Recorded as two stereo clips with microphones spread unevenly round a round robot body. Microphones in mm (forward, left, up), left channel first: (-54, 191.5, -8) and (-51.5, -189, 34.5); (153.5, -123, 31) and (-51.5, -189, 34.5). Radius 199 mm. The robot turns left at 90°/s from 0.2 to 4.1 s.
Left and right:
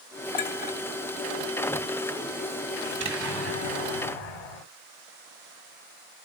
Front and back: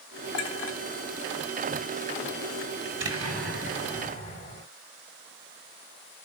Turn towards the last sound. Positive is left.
turn(degrees=100)